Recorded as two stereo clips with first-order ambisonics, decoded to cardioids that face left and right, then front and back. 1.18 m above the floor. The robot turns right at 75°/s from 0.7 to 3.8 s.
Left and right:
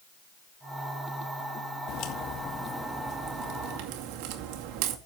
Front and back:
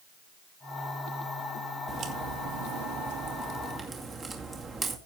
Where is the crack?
110° left, 2 m; by 5.0 s 105° right, 2 m.